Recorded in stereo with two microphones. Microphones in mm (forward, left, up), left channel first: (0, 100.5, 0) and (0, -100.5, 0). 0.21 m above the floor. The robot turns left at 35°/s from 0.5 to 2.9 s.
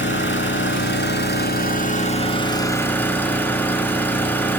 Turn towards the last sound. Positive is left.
turn(degrees=10)